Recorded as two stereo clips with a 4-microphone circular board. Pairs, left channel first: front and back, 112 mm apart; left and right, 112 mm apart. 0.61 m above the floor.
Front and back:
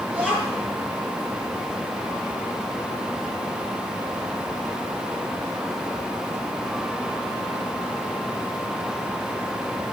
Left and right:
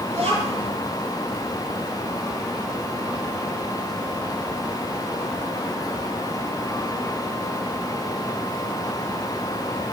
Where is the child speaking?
100° right, 6 m.